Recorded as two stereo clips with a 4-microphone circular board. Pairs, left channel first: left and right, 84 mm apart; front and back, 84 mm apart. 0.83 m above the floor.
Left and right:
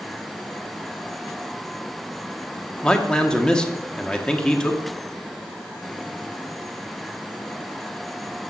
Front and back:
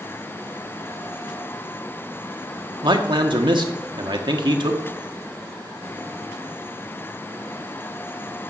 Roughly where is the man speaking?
Behind.